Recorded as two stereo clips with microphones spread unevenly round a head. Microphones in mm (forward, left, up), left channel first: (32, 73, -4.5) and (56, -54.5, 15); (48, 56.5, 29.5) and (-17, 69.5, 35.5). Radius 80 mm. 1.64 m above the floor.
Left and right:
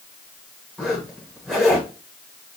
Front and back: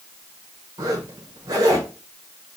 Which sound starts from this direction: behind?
A zipper, at 0.8 s.